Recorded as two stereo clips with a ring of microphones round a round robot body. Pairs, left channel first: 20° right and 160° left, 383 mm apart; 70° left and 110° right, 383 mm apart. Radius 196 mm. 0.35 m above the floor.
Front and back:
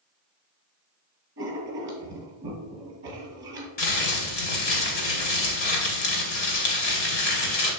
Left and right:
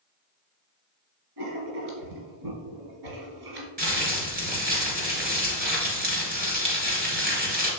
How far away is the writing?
About 2.5 m.